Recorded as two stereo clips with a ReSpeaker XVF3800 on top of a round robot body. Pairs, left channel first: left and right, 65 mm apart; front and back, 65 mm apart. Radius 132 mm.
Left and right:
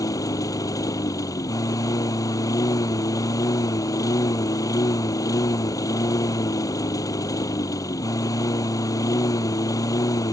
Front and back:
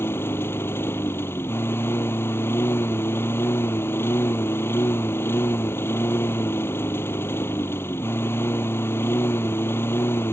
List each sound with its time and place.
0.0 s a lawn mower: 60° left